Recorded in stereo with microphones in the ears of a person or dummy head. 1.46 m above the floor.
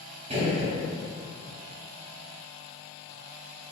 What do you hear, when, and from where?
0.3 s a gunshot: 35° right (ahead or behind), 0.5 m